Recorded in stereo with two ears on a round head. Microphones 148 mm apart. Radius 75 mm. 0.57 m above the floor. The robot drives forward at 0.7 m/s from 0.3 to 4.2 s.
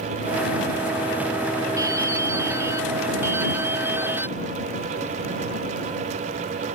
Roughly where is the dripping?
Right.